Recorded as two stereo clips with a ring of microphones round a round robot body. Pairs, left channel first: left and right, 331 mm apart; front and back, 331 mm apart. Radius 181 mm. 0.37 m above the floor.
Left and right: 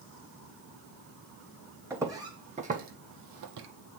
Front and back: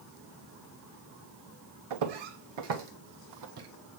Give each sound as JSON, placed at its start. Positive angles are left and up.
{"t": 1.9, "sound": "footsteps", "azimuth_deg": -175, "distance_m": 1.5}